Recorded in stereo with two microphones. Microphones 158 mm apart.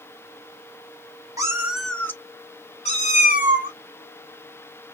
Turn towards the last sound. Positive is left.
turn(degrees=65)  # may be behind; listen again after turning